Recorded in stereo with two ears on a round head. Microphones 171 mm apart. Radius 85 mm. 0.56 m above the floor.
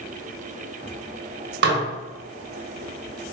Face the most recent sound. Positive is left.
turn(degrees=-60)  # may be behind; listen again after turning